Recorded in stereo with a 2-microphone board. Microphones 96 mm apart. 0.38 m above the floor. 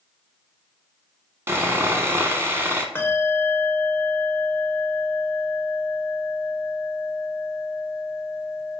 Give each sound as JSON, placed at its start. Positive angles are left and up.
{"t": 1.5, "sound": "sawing", "side_deg": -25, "distance_m": 0.6}
{"t": 3.0, "sound": "a bell", "side_deg": 25, "distance_m": 0.6}